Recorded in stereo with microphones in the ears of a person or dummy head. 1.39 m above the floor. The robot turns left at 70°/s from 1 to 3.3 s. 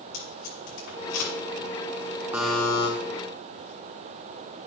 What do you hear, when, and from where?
0.1 s tape being pulled: 65° left (ahead or behind), 5 m; by 1.3 s 85° left, 5 m
2.3 s a buzzer: 170° right, 1.6 m; by 2.9 s 150° left, 1.6 m